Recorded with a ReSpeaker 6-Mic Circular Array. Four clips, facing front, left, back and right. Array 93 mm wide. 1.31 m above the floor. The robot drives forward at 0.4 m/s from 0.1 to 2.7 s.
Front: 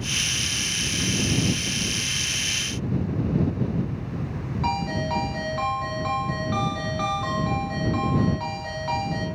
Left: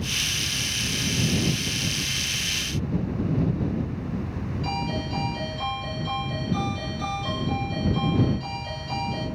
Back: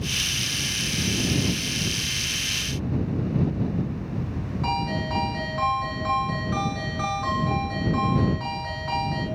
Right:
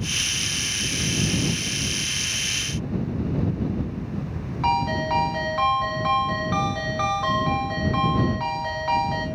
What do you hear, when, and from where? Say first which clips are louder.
4.6 s a ringtone: right 9 dB, front 1 dB; 75° right, 5.5 m